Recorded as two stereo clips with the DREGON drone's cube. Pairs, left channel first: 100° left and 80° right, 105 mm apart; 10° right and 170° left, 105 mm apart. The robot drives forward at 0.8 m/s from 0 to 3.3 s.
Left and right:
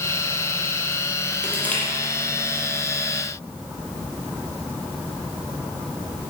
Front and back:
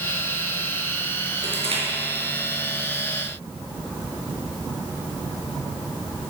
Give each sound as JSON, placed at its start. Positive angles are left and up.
{"t": 1.4, "sound": "crushing", "azimuth_deg": 175, "distance_m": 4.5}